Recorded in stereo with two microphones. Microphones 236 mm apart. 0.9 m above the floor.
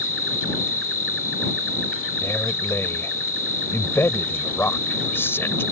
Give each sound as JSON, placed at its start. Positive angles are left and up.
{"t": 0.0, "sound": "an insect", "side_deg": 65}
{"t": 2.2, "sound": "a man speaking", "side_deg": 10}